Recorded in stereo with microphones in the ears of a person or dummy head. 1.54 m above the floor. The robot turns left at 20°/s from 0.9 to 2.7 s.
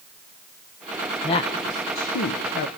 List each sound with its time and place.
1.2 s a woman speaking: 30° left (ahead or behind), 0.9 m; by 2.7 s 50° left (ahead or behind), 0.9 m